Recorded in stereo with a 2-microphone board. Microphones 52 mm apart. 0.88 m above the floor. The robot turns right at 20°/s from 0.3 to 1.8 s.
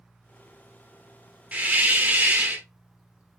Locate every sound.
1.5 s a hiss: 25° right (ahead or behind), 0.6 m; by 2.7 s 30° right (ahead or behind), 0.6 m